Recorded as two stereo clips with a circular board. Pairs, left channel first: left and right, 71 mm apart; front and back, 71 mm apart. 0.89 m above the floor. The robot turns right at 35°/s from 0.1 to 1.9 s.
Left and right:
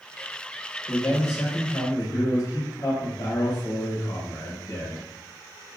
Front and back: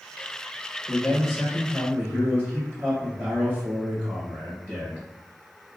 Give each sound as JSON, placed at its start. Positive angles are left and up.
{"t": 0.9, "sound": "a man speaking", "azimuth_deg": 80, "distance_m": 1.3}